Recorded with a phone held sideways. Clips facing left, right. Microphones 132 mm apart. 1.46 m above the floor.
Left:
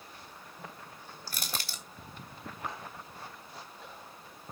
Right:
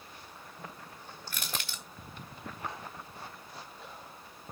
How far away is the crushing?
About 1.9 m.